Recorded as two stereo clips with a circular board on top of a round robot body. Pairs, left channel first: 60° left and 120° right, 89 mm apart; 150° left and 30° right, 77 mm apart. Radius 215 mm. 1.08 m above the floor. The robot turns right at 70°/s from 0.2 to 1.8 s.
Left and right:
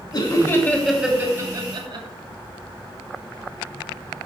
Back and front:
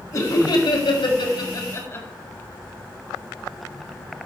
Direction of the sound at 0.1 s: 100° left.